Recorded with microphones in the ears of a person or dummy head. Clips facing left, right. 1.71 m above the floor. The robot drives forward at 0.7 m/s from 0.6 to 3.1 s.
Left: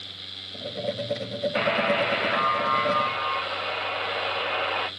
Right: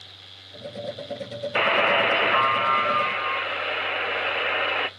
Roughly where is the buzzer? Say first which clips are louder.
Right 2 dB; right.